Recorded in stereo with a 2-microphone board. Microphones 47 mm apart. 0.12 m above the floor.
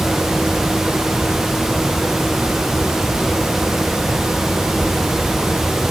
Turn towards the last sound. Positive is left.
No sound to turn to.